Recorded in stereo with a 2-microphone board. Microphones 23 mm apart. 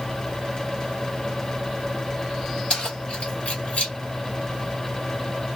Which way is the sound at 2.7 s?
45° left (ahead or behind).